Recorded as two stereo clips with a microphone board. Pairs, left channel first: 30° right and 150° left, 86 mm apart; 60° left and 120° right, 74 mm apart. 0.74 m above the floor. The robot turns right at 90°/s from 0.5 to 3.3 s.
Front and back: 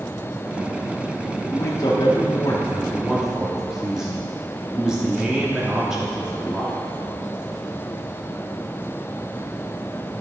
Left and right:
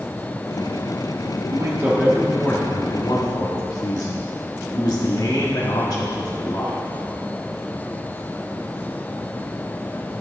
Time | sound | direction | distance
1.5 | a man speaking | 90° right | 1.3 m